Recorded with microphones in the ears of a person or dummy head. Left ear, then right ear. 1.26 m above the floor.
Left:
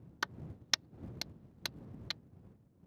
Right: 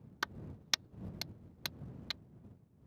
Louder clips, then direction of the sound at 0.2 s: Left 1 dB; 5° left (ahead or behind).